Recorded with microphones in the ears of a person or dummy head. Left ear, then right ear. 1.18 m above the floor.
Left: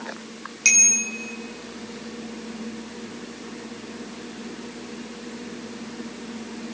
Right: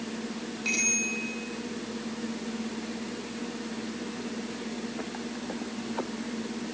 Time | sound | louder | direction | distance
0.7 | a bicycle bell | left 8 dB | 80° left | 9.5 m